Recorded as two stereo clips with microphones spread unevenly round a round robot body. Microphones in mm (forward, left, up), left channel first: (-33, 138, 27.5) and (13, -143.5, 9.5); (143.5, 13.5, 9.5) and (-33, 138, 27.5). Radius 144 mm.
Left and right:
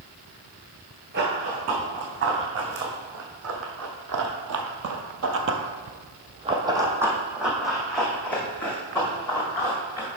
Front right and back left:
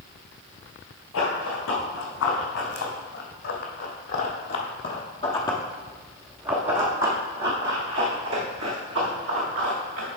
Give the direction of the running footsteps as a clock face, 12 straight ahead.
1 o'clock.